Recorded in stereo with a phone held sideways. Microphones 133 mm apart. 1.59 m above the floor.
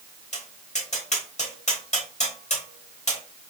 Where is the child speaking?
No child speaking in this recording.